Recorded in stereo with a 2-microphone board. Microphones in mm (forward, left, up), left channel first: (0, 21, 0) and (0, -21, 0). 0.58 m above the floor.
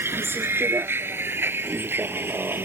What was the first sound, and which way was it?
A vehicle, 70° right (ahead or behind).